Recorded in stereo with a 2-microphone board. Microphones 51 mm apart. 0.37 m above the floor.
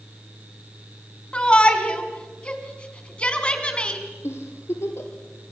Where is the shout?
20° left (ahead or behind), 3 m.